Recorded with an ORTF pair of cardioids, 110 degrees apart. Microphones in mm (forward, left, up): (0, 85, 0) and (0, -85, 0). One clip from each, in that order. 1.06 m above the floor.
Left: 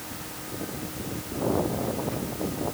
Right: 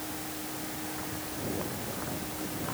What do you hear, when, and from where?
Only background noise.